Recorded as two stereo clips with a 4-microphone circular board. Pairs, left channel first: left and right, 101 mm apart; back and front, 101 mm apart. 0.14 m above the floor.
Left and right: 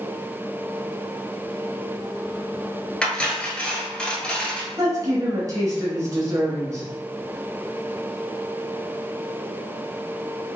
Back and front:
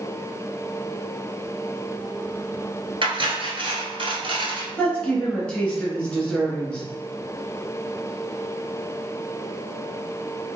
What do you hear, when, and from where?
3.0 s cutlery clinking: 10° left, 1.3 m
4.8 s a woman speaking: 105° right, 1.8 m